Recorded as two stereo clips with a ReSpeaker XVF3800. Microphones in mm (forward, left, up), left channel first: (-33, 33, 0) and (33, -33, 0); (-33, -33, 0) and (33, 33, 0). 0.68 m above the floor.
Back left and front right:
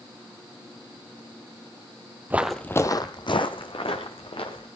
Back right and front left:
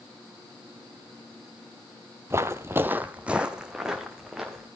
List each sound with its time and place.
2.3 s footsteps: 10° left, 0.8 m; by 4.7 s 130° left, 3 m